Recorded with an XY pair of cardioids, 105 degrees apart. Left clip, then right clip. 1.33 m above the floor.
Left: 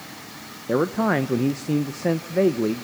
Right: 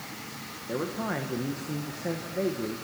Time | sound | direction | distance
0.7 | a man speaking | 65° left | 1.0 m